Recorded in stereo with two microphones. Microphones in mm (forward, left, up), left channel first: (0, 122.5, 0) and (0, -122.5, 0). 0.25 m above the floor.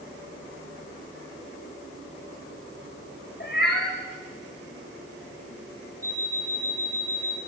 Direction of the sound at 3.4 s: 40° left (ahead or behind).